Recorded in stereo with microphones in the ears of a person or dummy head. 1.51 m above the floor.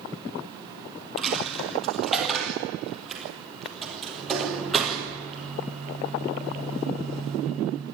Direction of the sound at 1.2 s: 5° right (ahead or behind).